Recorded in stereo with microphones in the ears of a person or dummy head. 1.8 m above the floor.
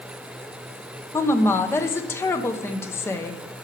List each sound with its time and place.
1.1 s a woman speaking: 15° left (ahead or behind), 1.0 m